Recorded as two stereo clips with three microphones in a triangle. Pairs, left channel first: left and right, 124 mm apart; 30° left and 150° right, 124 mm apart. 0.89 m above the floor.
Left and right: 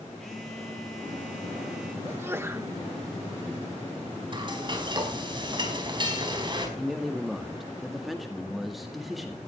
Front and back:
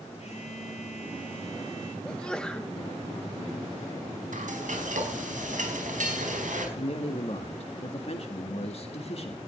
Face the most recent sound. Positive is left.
turn(degrees=0)